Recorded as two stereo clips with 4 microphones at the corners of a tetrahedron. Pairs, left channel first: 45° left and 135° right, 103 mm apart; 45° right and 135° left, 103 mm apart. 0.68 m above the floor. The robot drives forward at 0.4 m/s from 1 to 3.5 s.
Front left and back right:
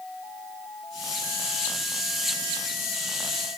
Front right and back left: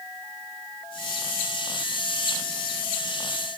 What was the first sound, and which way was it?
Only background noise.